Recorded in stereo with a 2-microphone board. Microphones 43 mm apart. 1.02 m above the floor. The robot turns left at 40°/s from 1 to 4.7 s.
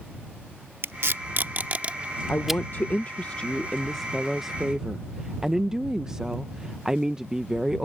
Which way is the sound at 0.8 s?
70° right (ahead or behind).